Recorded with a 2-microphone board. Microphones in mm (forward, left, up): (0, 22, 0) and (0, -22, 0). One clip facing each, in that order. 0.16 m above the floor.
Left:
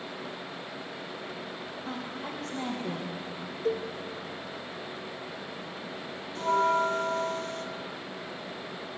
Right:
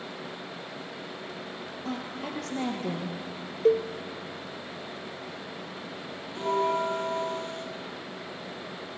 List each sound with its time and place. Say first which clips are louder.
1.9 s a woman speaking: right 3 dB; 70° right (ahead or behind), 3.5 m
3.6 s a cowbell: right 8 dB; 55° right (ahead or behind), 0.6 m
6.3 s a bell: left 2 dB; 30° right (ahead or behind), 1.9 m